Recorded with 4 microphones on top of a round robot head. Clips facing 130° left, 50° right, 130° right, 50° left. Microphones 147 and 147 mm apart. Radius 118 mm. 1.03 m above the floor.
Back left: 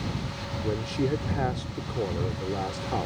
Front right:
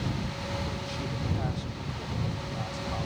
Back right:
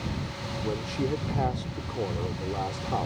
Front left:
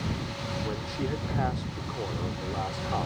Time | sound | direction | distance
0.6 | a man speaking | 160° left | ?